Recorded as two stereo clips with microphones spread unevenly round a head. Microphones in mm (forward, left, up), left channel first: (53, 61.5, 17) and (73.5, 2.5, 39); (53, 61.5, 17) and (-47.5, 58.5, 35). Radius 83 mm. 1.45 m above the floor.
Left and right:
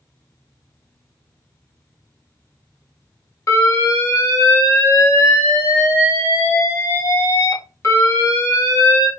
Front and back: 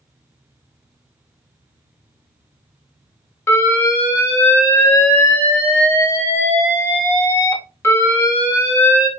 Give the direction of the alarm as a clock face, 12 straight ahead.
10 o'clock.